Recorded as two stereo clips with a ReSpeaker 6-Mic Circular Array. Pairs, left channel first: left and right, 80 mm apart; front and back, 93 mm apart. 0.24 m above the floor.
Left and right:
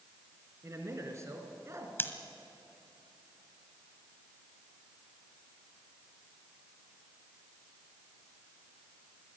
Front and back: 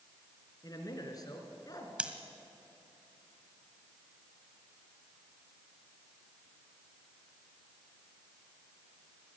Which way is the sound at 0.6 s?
40° right.